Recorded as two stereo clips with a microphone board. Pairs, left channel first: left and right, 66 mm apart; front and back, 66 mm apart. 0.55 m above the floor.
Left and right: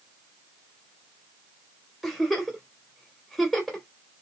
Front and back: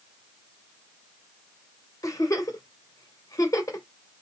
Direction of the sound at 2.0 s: Straight ahead.